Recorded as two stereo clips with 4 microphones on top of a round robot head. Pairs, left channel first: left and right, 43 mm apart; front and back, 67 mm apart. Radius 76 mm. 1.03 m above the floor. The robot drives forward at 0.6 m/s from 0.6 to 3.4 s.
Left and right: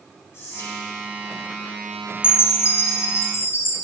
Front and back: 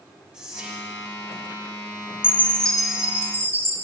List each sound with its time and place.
0.3 s whispering: 100° left, 1.9 m; by 0.9 s 110° left, 2.0 m
2.2 s a chime: 60° left, 0.7 m; by 3.8 s 120° left, 0.7 m